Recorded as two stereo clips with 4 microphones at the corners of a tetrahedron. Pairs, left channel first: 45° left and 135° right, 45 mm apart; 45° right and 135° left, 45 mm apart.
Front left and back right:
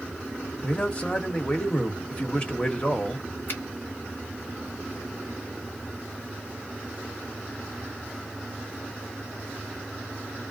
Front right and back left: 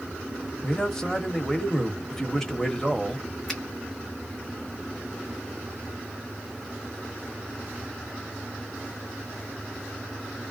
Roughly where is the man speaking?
Ahead left.